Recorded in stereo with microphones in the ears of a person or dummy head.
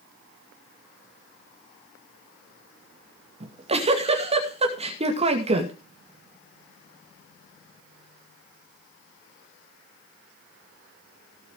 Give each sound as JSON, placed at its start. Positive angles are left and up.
{"t": 3.4, "sound": "a giggle", "side_deg": -35, "distance_m": 2.0}